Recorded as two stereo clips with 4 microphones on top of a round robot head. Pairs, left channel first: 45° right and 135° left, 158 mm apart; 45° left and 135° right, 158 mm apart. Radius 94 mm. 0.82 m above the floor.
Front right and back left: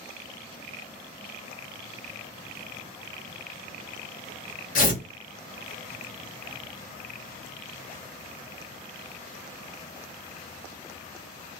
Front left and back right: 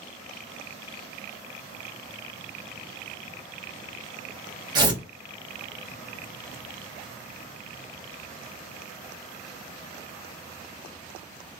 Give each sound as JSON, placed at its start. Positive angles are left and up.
{"t": 4.8, "sound": "tearing paper", "azimuth_deg": -75, "distance_m": 1.4}